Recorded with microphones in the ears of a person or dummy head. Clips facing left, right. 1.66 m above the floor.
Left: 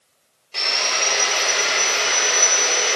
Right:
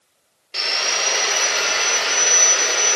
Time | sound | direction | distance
0.5 | sawing | 15° right (ahead or behind) | 0.6 m